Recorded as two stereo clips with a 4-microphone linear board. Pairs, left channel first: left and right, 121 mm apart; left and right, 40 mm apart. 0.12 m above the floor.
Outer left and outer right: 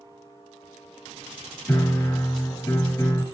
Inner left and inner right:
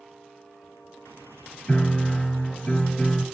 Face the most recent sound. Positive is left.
turn(degrees=20)  # may be behind; listen again after turning